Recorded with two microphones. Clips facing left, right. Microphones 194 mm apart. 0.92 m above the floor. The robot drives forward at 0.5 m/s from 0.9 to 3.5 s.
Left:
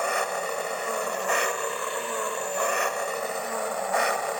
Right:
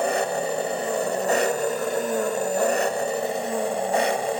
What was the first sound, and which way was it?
An engine running, 35° right (ahead or behind).